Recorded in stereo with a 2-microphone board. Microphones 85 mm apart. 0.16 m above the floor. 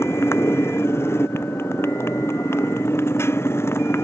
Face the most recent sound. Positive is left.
turn(degrees=30)  # may be behind; listen again after turning